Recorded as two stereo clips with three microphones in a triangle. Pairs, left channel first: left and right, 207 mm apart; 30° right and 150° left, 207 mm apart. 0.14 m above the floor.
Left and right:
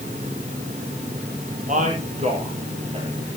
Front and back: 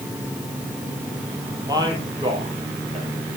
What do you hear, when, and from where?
1.7 s a man speaking: 140° right, 4.5 m; by 3.1 s 150° right, 3.5 m